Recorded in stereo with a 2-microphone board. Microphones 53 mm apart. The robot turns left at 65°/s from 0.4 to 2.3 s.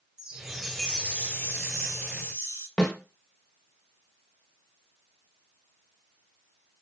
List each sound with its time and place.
0.2 s a chime: 165° right, 0.6 m; by 2.7 s 70° left, 0.6 m
2.8 s a snare drum: 10° left (ahead or behind), 0.9 m